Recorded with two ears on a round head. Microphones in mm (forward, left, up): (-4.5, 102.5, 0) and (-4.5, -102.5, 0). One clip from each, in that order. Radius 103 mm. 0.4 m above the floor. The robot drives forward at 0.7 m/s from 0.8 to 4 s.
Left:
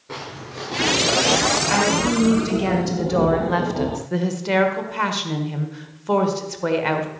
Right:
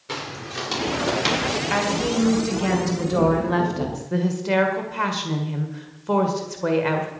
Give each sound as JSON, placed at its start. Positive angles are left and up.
{"t": 0.1, "sound": "footsteps", "side_deg": -80, "distance_m": 5.5}
{"t": 1.7, "sound": "a woman speaking", "side_deg": 5, "distance_m": 3.0}